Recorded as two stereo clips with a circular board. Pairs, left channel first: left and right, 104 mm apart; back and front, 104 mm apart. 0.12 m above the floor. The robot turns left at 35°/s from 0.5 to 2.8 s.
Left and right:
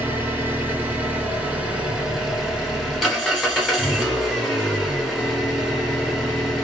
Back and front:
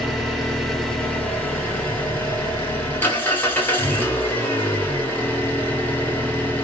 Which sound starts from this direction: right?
An engine running, at 0.0 s.